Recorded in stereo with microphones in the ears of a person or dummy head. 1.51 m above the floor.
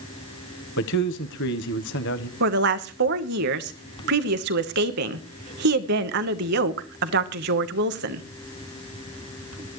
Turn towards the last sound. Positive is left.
turn(degrees=-55)  # may be behind; listen again after turning